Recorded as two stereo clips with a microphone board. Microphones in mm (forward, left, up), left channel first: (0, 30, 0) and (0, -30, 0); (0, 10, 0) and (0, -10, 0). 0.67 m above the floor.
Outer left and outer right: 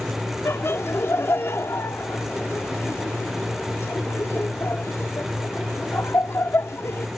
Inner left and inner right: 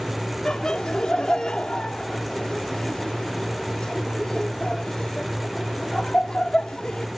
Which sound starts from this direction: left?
Laughter, at 0.5 s.